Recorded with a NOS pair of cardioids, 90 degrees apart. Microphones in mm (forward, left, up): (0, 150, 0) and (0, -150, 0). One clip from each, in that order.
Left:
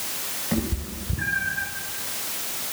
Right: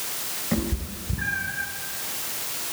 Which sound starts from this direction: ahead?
A cat meowing, at 0.5 s.